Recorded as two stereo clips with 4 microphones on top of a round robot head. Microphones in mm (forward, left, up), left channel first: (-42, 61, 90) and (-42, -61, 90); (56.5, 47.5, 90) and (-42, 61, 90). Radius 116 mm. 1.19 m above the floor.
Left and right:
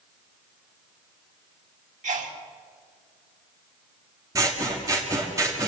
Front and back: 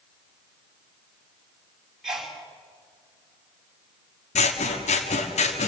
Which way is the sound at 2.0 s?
100° right.